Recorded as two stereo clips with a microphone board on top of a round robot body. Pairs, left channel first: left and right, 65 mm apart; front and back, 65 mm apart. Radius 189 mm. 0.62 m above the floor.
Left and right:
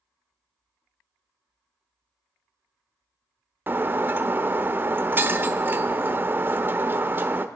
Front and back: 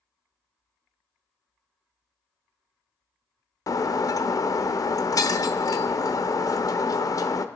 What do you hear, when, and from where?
3.7 s breaking glass: 30° right, 0.9 m